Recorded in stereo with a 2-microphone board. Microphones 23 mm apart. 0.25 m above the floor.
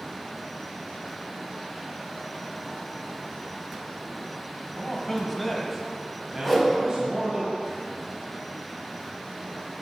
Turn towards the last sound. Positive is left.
turn(degrees=-5)  # may be behind; listen again after turning